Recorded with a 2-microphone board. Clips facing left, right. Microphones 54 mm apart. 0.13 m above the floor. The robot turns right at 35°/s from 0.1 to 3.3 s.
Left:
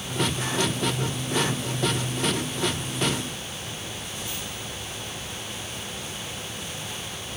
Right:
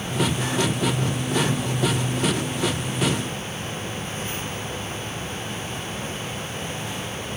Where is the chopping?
I don't hear chopping.